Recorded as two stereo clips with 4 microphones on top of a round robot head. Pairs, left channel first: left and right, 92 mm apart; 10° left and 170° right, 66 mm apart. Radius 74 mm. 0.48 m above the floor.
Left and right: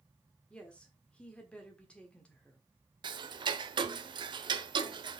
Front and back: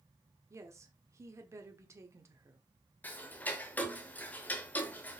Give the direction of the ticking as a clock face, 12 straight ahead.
2 o'clock.